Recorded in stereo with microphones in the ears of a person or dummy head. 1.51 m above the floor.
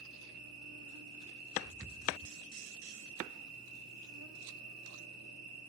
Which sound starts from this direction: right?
An insect, at 0.0 s.